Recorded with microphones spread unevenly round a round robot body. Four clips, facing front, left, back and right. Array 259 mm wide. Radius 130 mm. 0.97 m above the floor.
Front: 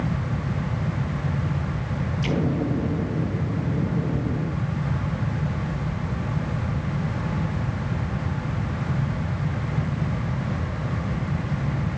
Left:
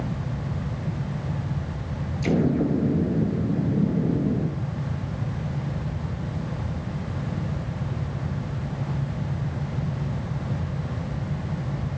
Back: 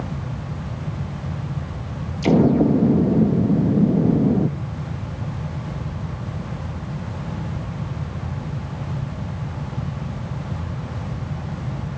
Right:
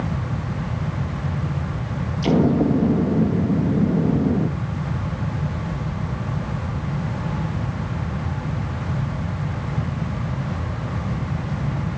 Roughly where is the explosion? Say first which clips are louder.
Right 5 dB, back 10 dB; behind right.